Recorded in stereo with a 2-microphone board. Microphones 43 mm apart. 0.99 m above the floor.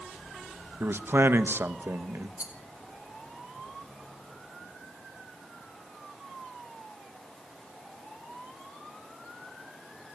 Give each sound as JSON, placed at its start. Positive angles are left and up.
{"t": 0.8, "sound": "a man speaking", "side_deg": -60, "distance_m": 0.9}
{"t": 2.4, "sound": "a rattle", "side_deg": -30, "distance_m": 1.7}